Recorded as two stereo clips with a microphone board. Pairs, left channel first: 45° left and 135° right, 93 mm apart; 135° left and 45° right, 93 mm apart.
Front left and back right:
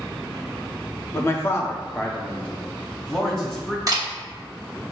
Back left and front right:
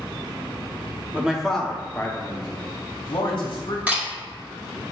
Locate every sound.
1.1 s a man speaking: 10° left, 0.8 m; by 3.8 s 125° left, 1.6 m
3.9 s a camera shutter: 110° right, 1.5 m